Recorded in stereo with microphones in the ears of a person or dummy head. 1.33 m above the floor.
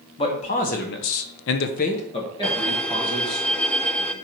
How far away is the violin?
About 0.6 m.